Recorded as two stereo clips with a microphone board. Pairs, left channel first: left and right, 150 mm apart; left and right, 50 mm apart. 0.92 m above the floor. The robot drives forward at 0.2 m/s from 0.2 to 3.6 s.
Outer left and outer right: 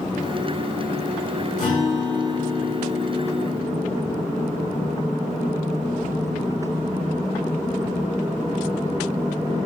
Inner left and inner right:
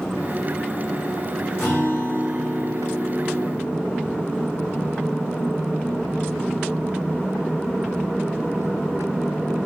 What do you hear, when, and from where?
1.6 s a guitar: 55° left (ahead or behind), 1.7 m; by 4.1 s 65° left (ahead or behind), 1.6 m